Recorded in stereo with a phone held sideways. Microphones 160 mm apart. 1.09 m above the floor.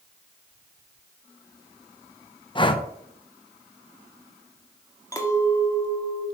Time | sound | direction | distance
2.5 | breathing | 30° left (ahead or behind) | 0.8 m
5.1 | a clink | 20° left (ahead or behind) | 1.5 m